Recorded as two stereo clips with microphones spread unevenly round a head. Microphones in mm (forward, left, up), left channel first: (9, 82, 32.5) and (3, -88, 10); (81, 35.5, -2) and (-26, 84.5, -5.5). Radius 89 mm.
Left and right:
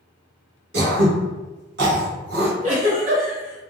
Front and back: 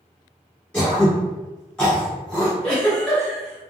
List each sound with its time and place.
0.7 s throat clearing: 100° right, 0.9 m
2.6 s a giggle: 90° right, 1.5 m